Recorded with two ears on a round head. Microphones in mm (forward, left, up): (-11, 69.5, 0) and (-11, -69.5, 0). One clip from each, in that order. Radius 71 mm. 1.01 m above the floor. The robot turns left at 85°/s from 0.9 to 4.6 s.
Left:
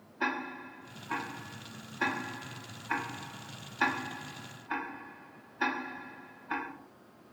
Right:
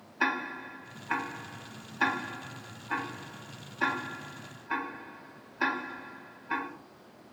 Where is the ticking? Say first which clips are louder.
Right 4 dB; 45° right (ahead or behind), 0.6 m; by 6.7 s 5° right (ahead or behind), 0.6 m.